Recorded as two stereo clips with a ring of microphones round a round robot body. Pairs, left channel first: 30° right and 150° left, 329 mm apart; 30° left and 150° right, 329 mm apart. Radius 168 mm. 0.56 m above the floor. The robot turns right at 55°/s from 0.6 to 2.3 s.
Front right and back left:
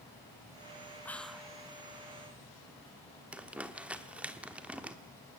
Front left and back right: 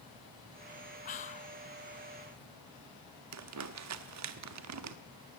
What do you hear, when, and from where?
1.1 s whispering: 45° left, 0.6 m; by 1.6 s 75° left, 0.6 m
3.3 s crumpling: 125° right, 1.1 m